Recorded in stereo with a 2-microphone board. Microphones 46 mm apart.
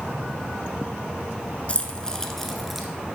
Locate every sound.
1.7 s keys jangling: 30° left (ahead or behind), 1.0 m; by 2.9 s 5° right (ahead or behind), 1.2 m